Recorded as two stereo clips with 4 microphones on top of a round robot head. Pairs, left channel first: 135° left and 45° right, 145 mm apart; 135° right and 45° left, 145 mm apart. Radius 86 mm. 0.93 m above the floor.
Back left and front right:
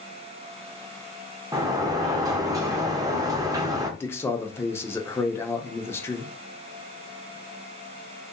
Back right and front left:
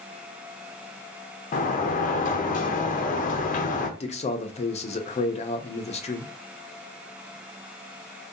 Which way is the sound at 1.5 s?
110° right.